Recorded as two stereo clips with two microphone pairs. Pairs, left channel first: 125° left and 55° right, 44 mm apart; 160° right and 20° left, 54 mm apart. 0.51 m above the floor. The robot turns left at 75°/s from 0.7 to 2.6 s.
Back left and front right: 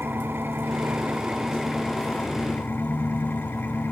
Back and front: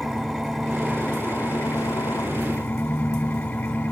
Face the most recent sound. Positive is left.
turn(degrees=145)